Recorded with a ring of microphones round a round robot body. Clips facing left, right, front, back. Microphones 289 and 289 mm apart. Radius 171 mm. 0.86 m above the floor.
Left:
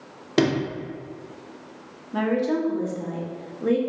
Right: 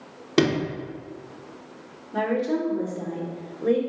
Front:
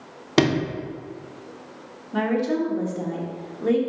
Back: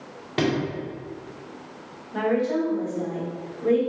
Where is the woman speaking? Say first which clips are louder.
Left 2 dB, even; 20° left, 1.1 m.